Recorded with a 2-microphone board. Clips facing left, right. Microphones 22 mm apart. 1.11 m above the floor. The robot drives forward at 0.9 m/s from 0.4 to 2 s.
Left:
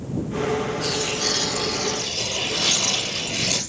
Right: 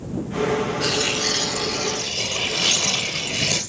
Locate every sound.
0.8 s tearing paper: 40° right (ahead or behind), 3 m; by 3.6 s 60° right (ahead or behind), 2.5 m